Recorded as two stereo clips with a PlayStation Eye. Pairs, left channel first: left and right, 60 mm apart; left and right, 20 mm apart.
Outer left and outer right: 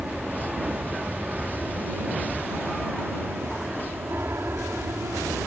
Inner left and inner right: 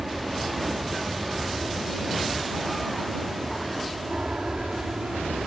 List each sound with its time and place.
0.0 s an aircraft: 20° right (ahead or behind); by 5.5 s 40° right (ahead or behind)